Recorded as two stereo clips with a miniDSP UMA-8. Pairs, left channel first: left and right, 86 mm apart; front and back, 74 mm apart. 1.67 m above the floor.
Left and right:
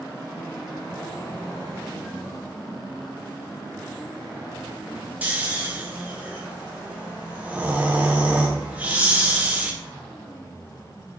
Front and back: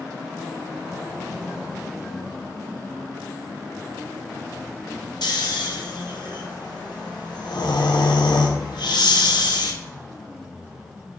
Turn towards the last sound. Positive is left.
turn(degrees=-15)